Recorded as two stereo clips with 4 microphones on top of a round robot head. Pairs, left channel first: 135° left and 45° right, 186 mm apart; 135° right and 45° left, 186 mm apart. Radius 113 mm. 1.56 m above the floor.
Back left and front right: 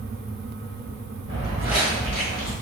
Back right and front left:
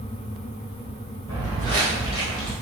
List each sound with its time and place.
1.3 s footsteps: straight ahead, 1.7 m; by 2.5 s 105° left, 1.6 m